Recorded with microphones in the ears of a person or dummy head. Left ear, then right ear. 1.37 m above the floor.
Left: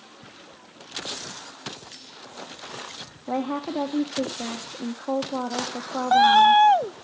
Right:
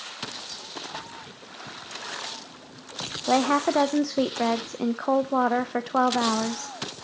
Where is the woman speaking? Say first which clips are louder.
Right 7 dB; 70° right (ahead or behind), 0.9 m.